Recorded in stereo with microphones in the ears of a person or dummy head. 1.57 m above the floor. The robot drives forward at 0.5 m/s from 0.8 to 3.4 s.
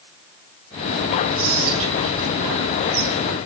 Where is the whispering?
65° right (ahead or behind), 4 m; by 3.4 s 50° right (ahead or behind), 4.5 m.